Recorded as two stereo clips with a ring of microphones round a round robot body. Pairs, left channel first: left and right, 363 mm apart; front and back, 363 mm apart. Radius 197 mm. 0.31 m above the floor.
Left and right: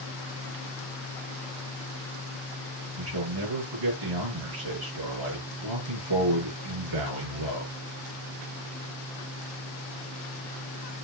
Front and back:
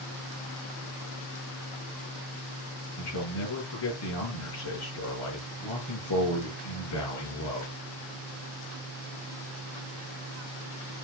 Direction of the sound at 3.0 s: 55° right.